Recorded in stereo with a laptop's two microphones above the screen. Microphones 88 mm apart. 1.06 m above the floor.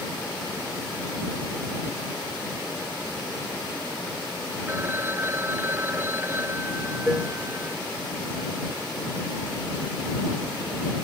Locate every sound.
4.7 s a phone ringing: 25° right (ahead or behind)
7.1 s dishes clattering: 5° right (ahead or behind)